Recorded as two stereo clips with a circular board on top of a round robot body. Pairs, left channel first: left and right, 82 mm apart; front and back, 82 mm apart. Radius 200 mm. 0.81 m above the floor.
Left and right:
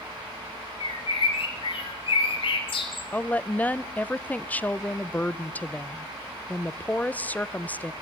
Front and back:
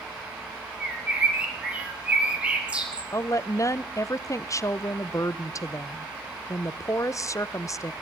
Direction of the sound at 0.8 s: 105° left.